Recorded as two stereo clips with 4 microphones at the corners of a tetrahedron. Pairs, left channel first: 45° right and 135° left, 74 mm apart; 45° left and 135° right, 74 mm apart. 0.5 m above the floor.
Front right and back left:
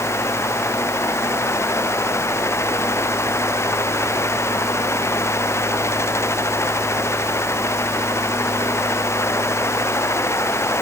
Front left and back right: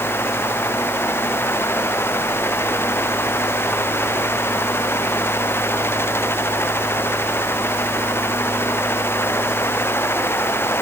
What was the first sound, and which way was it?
Only background noise.